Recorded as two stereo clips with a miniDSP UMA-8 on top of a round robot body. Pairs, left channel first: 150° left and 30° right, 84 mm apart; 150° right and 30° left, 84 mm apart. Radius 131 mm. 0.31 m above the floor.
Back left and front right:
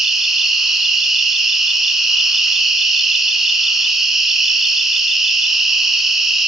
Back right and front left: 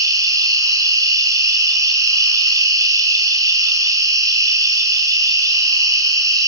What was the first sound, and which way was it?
An insect, 55° left.